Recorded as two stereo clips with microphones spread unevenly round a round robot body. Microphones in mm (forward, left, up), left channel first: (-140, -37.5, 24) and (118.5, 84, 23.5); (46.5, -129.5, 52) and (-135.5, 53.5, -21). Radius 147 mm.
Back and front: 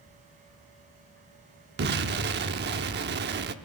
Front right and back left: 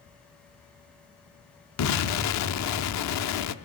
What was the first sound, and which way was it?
An explosion, 30° right.